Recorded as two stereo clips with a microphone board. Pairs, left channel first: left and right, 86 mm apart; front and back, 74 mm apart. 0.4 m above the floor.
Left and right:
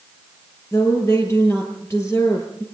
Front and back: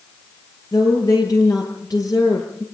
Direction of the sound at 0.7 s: 30° left.